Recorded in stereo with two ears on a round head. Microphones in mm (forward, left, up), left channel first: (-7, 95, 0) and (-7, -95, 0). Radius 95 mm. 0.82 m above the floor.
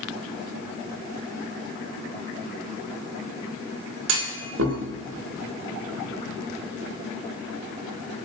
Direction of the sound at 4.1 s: 70° right (ahead or behind).